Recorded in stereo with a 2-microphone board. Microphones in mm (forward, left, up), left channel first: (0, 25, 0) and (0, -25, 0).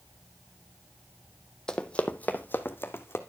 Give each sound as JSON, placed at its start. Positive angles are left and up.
{"t": 1.7, "sound": "running footsteps", "side_deg": 15, "distance_m": 0.8}